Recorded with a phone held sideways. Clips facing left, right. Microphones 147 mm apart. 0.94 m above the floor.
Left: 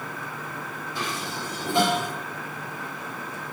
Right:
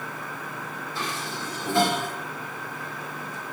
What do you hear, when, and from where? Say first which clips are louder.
0.9 s dishes clattering: left 1 dB; 15° left (ahead or behind), 3 m